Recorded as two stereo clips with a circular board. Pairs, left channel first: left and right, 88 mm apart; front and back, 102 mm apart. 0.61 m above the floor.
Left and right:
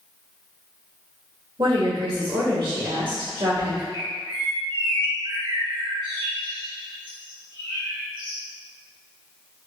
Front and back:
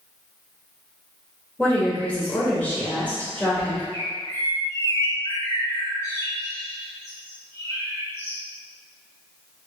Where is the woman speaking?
70° right, 2.0 m.